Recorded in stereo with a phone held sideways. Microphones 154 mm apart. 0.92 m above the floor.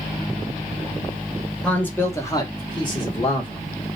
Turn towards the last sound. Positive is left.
turn(degrees=30)  # may be behind; listen again after turning